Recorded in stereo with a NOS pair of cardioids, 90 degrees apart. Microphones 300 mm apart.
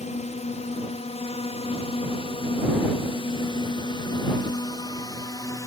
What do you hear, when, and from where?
0.0 s a drone: 25° left; by 5.7 s 10° left